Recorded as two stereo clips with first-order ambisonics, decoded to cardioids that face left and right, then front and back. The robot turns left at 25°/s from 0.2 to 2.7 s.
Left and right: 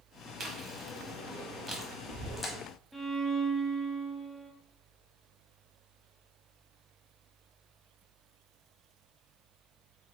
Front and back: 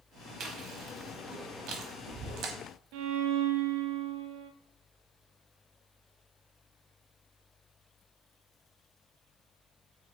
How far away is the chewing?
About 0.9 m.